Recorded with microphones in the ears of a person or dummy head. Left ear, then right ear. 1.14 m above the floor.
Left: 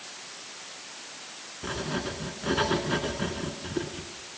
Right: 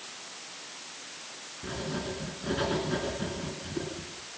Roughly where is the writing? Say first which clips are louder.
Left 3 dB; left.